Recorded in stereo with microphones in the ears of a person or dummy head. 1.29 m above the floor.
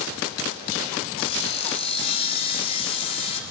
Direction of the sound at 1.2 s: 35° left (ahead or behind).